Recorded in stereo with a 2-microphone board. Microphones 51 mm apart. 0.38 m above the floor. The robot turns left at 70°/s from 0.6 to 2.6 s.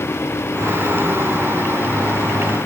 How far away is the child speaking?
I don't hear a child speaking.